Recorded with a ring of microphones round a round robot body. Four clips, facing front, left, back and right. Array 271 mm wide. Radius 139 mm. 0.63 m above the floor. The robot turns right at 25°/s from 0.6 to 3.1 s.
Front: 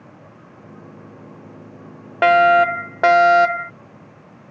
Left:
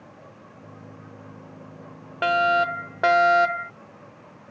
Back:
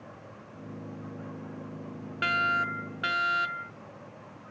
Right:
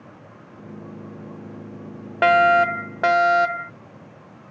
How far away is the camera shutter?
I don't hear a camera shutter.